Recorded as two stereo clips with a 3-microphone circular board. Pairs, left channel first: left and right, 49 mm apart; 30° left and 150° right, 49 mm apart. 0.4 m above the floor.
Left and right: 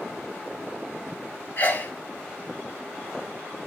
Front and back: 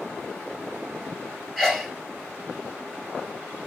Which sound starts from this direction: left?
A sneeze, at 1.6 s.